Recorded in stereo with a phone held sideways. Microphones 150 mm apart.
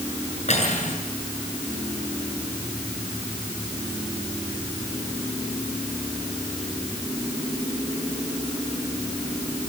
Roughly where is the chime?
No chime in this recording.